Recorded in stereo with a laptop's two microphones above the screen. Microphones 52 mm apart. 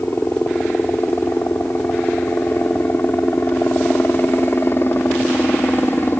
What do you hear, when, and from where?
0.0 s a helicopter: 50° left (ahead or behind)